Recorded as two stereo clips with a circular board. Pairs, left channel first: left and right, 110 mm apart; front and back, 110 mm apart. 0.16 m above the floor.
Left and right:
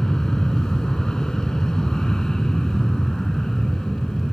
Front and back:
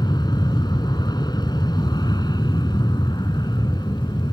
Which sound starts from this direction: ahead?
An aircraft, at 0.0 s.